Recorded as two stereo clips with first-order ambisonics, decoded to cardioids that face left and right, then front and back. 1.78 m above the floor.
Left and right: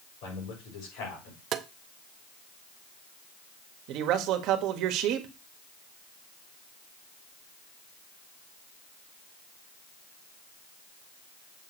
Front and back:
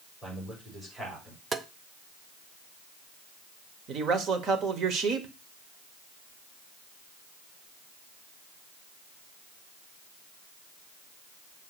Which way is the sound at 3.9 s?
125° right.